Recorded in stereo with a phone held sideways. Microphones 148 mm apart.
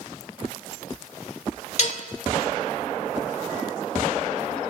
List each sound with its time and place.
1.8 s dishes clattering: 55° left (ahead or behind), 2.5 m